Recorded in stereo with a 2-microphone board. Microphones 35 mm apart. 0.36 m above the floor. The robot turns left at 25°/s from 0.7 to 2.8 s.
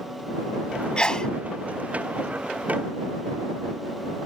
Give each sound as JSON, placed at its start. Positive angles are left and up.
{"t": 1.0, "sound": "a sneeze", "side_deg": 25}